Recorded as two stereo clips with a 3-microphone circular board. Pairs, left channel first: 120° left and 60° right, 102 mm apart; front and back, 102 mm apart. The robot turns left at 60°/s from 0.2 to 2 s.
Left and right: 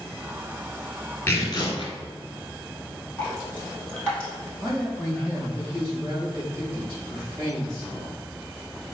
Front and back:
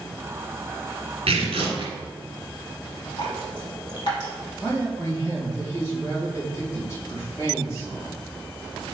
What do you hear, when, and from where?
1.3 s tearing paper: straight behind, 1.1 m; by 1.9 s 140° left, 1.1 m
3.2 s dripping: 40° left, 1.7 m
4.6 s a man speaking: 25° right, 1.8 m